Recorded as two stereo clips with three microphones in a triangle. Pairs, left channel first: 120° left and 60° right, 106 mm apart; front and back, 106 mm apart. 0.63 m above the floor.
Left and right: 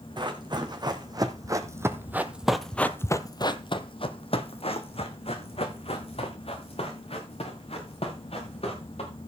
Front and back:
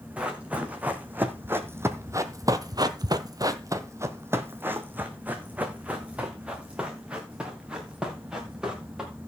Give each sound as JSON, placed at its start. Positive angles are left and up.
{"t": 0.2, "sound": "running footsteps", "azimuth_deg": -105, "distance_m": 2.0}